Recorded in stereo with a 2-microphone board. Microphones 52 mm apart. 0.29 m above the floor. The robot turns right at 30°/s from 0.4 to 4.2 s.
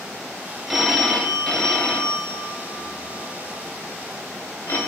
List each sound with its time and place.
0.7 s a phone ringing: 5° right (ahead or behind), 0.6 m; by 4.8 s 45° left (ahead or behind), 0.6 m